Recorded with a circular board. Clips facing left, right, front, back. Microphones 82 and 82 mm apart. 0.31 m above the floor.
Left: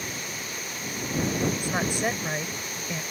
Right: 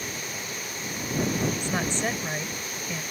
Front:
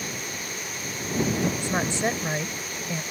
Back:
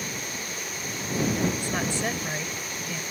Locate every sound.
1.6 s a woman speaking: 25° left